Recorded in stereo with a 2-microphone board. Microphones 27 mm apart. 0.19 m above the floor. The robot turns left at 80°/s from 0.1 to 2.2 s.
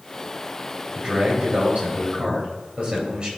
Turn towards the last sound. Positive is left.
turn(degrees=-145)